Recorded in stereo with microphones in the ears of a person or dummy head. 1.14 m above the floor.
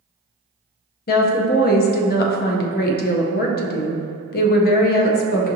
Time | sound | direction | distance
1.1 | a woman speaking | 45° left (ahead or behind) | 0.6 m